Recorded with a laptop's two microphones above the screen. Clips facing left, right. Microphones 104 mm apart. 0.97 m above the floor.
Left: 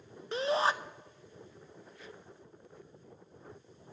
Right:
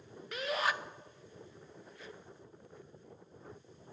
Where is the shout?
30° left (ahead or behind), 0.5 m.